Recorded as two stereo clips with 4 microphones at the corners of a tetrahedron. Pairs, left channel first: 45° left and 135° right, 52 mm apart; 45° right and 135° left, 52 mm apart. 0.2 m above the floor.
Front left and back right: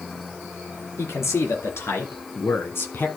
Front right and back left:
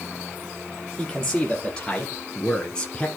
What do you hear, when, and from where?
1.0 s a man speaking: 35° left, 4 m; by 3.1 s 25° left, 2 m